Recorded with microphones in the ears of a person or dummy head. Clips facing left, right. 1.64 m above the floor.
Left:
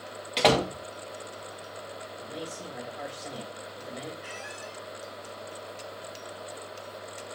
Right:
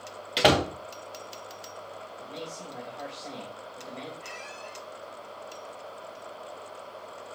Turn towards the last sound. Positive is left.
turn(degrees=10)  # may be behind; listen again after turning